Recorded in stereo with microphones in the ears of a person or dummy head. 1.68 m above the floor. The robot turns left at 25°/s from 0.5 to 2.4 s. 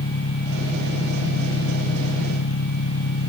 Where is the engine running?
135° left; by 3.3 s 85° left.